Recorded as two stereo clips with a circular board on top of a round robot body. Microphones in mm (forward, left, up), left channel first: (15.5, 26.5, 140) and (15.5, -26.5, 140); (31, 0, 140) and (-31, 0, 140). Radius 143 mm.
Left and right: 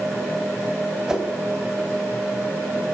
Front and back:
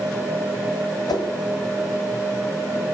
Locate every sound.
1.1 s a whoosh: 10° right, 1.5 m